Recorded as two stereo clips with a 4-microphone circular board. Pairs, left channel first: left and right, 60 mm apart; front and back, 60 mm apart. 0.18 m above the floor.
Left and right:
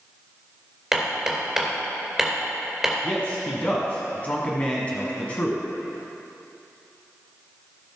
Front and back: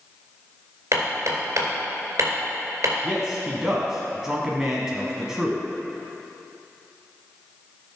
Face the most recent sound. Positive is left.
turn(degrees=110)